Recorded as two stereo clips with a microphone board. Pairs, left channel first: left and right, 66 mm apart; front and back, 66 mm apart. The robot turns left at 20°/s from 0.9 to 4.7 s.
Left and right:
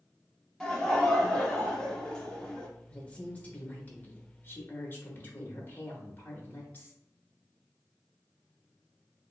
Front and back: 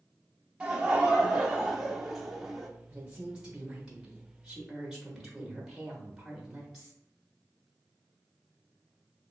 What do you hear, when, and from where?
0.6 s laughter: 145° left, 0.7 m; by 2.7 s 110° left, 0.7 m
2.9 s a woman speaking: 135° left, 0.7 m; by 7.0 s 100° left, 0.7 m